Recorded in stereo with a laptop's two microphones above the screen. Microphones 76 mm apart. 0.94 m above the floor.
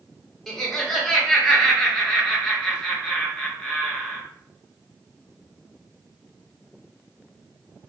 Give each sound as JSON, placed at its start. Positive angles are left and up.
{"t": 0.5, "sound": "laughter", "side_deg": 5, "distance_m": 0.8}